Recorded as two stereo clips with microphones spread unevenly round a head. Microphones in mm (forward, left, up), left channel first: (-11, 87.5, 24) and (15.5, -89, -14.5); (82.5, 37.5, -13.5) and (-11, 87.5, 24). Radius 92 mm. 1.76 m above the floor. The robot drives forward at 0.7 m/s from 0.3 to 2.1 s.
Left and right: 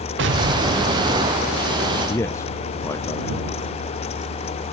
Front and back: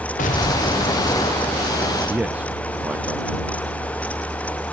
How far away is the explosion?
About 1.0 m.